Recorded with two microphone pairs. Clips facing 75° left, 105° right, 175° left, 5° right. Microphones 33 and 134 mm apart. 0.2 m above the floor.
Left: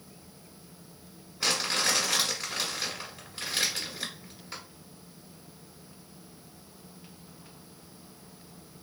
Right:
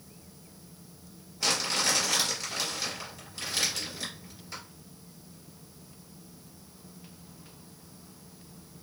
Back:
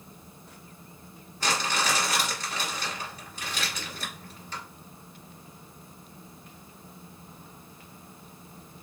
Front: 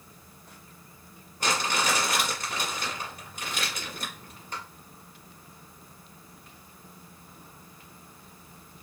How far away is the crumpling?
About 1.5 m.